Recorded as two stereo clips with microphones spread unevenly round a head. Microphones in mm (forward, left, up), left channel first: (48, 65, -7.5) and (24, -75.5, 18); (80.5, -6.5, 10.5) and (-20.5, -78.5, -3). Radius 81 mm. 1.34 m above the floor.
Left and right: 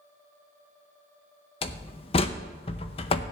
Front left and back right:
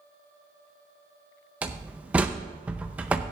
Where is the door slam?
130° left, 0.5 m.